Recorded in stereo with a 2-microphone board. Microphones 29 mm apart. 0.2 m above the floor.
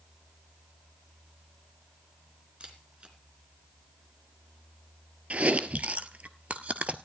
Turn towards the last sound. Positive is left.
turn(degrees=-50)  # may be behind; listen again after turning